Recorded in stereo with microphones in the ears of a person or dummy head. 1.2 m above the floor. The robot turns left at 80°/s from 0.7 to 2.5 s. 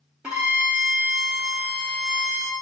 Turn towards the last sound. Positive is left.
turn(degrees=45)